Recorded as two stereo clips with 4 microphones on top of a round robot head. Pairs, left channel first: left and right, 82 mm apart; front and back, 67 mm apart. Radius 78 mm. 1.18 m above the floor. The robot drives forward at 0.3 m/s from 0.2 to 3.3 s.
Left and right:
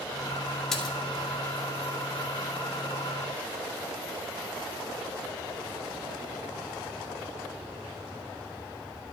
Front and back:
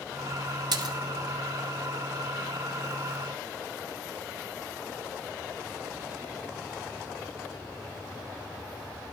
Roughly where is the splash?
Behind.